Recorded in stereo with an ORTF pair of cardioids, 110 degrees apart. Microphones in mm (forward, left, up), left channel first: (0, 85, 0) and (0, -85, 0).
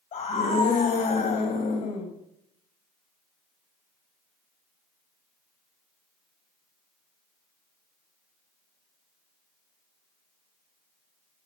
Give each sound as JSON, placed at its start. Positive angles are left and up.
{"t": 0.1, "sound": "a scream", "azimuth_deg": 50, "distance_m": 7.0}